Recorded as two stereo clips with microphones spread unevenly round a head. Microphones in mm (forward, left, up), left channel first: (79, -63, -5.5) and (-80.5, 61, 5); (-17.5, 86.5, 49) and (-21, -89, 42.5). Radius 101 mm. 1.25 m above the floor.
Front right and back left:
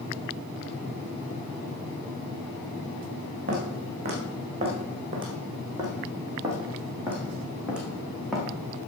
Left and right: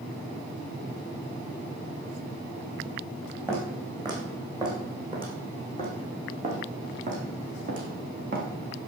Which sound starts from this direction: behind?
Footsteps, at 3.5 s.